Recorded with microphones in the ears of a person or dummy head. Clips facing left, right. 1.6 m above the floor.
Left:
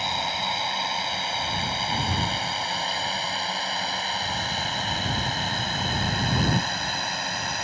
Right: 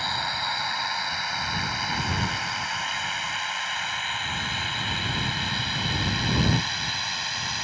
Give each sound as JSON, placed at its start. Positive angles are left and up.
{"t": 0.0, "sound": "a drone", "side_deg": 15}